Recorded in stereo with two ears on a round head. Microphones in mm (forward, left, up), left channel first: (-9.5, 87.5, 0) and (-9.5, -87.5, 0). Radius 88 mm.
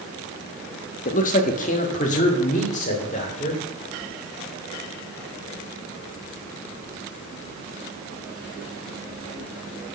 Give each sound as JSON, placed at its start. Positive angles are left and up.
{"t": 1.1, "sound": "a man speaking", "side_deg": 40, "distance_m": 0.9}